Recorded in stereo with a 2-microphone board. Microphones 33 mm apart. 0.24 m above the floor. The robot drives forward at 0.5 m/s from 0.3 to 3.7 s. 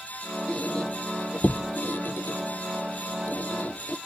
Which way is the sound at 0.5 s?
40° left (ahead or behind).